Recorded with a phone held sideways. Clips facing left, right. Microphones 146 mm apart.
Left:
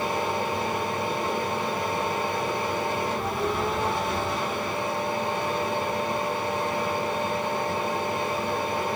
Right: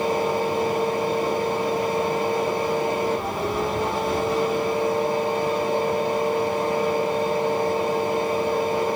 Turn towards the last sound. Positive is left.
turn(degrees=-35)  # may be behind; listen again after turning